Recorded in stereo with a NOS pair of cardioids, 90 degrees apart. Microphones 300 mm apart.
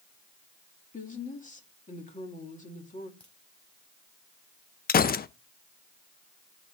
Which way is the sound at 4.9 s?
30° left.